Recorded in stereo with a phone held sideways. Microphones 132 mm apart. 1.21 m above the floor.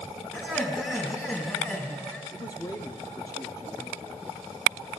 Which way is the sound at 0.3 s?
15° left (ahead or behind).